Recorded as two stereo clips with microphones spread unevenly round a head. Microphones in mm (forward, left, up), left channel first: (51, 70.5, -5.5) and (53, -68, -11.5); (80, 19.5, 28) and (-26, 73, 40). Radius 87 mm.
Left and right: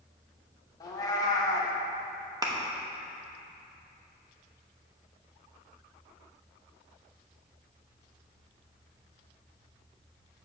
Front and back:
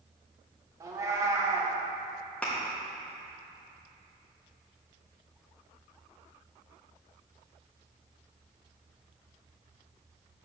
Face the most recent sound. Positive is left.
turn(degrees=-110)